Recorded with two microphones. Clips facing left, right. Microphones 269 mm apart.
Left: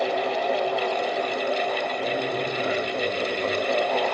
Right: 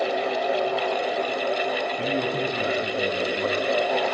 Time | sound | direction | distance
2.0 | a man speaking | 75° right (ahead or behind) | 7 m